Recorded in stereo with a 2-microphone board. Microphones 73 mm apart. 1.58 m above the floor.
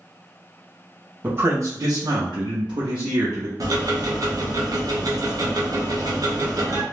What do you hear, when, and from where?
1.2 s a man speaking: 25° right (ahead or behind), 0.8 m; by 3.5 s 60° right (ahead or behind), 1.1 m
3.6 s ticking: 55° right (ahead or behind), 0.6 m